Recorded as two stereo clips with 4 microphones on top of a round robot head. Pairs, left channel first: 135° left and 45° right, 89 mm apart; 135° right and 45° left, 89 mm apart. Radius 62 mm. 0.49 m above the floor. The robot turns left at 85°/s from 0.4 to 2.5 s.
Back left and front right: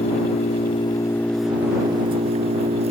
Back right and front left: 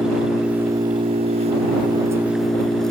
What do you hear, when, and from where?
0.0 s an engine running: 130° left; by 2.9 s 50° right